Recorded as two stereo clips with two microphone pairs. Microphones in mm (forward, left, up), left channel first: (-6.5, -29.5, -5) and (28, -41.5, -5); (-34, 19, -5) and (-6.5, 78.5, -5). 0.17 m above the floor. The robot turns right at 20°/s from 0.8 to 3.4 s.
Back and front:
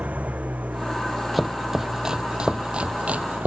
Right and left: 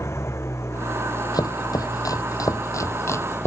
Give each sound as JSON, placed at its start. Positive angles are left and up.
{"t": 0.0, "sound": "an engine running", "azimuth_deg": -70}
{"t": 1.3, "sound": "chopping", "azimuth_deg": -110}